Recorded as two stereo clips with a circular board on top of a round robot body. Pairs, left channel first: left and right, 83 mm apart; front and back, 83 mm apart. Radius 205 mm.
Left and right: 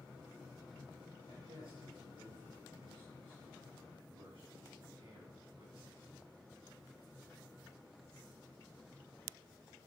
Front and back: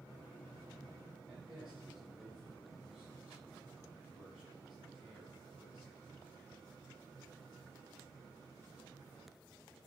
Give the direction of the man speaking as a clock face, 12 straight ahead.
3 o'clock.